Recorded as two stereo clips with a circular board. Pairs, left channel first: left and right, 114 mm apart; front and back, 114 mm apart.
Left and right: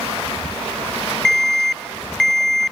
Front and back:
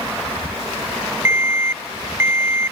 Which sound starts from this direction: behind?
An alarm, at 1.2 s.